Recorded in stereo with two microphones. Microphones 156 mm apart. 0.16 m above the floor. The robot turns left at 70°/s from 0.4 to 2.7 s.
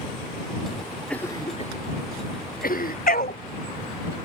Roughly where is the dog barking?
Left.